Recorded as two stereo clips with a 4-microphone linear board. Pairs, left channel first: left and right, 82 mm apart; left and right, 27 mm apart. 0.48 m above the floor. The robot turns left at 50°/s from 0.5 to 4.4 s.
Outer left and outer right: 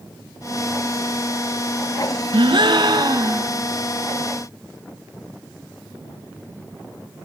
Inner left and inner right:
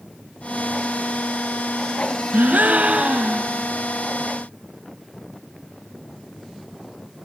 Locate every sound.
2.3 s a gasp: 90° right, 1.2 m; by 3.5 s 150° right, 1.2 m